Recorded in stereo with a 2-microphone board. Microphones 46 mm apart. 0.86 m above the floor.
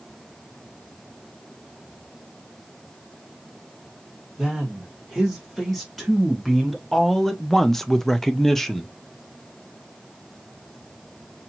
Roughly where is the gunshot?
I don't hear a gunshot.